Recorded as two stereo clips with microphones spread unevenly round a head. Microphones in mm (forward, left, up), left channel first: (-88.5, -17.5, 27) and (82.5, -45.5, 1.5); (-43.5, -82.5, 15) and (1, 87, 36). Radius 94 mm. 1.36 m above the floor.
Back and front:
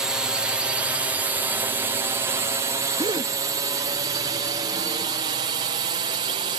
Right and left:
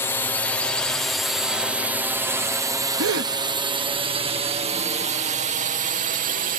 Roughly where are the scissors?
No scissors in this recording.